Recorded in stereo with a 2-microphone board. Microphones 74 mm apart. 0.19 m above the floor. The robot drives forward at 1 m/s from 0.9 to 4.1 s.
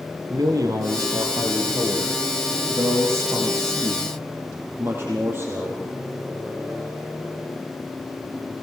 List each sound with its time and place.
0.3 s a man speaking: 55° right (ahead or behind), 4.5 m; by 5.8 s 35° right (ahead or behind), 6.5 m